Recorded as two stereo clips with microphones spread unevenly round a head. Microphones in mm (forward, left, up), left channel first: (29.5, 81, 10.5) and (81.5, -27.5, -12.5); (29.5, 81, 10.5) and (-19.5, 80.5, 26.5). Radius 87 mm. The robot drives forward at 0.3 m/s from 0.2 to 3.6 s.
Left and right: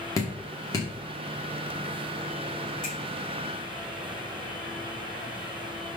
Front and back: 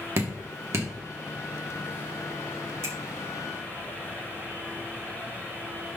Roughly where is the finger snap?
Behind.